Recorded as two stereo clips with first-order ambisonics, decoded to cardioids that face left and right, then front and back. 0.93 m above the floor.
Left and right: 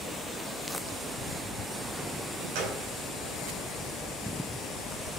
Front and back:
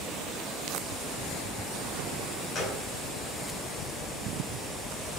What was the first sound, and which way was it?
A gunshot, 70° right.